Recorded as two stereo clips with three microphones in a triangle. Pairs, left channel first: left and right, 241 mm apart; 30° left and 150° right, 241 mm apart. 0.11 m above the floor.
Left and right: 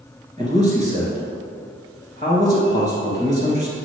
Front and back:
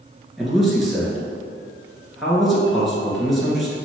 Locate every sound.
0.4 s a man speaking: 60° right, 2 m